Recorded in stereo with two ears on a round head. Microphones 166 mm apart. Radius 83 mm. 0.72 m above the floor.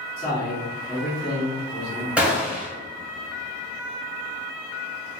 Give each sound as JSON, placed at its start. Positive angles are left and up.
{"t": 0.2, "sound": "a man speaking", "side_deg": 30, "distance_m": 1.7}
{"t": 2.2, "sound": "a gunshot", "side_deg": -5, "distance_m": 0.9}